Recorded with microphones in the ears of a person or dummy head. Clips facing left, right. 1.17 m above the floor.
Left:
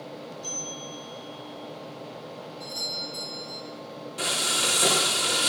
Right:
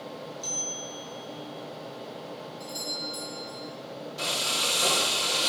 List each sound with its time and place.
0.4 s a bell: 40° right (ahead or behind), 9.5 m
2.6 s a doorbell: 10° right (ahead or behind), 7 m
4.2 s frying: 35° left (ahead or behind), 2.5 m